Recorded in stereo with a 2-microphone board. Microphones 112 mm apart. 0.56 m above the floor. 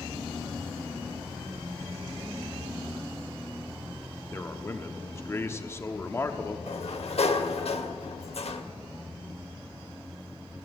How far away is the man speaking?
About 0.7 m.